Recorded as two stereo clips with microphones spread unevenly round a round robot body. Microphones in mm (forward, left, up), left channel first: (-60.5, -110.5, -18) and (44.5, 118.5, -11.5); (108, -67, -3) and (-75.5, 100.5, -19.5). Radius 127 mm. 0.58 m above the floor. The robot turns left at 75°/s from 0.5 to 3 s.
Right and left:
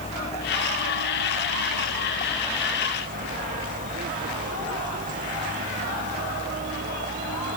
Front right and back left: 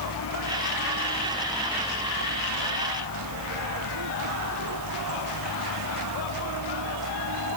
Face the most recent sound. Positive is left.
turn(degrees=125)